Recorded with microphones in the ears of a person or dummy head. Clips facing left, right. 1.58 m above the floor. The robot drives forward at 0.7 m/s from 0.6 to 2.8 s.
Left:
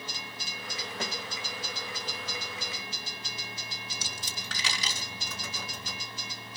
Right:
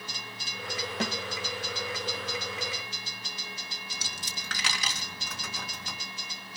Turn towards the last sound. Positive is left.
turn(degrees=-55)  # may be behind; listen again after turning